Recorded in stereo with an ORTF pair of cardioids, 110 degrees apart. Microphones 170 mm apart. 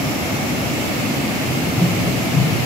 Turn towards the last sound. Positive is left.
turn(degrees=15)